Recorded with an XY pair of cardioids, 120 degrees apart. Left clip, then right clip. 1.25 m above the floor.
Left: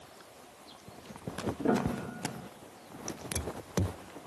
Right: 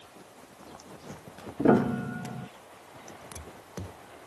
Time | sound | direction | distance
1.6 | a piano | 45° right | ?